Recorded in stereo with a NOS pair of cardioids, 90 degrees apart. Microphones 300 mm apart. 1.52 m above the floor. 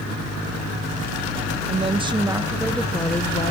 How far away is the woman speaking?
About 2.0 m.